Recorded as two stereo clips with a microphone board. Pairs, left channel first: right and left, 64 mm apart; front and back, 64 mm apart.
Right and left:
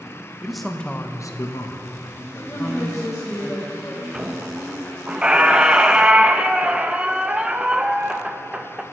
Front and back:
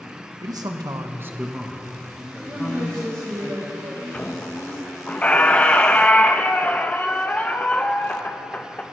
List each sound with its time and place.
0.4 s a man speaking: 175° left, 1.4 m; by 3.5 s 60° right, 3.5 m
2.5 s a woman speaking: 135° right, 2.5 m
4.1 s a squeak: 30° left, 0.6 m